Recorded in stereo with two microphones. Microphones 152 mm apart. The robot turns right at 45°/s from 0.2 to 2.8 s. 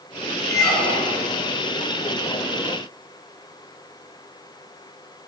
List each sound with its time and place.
0.5 s a squeak: 20° left, 1.1 m; by 1.3 s 60° left, 1.1 m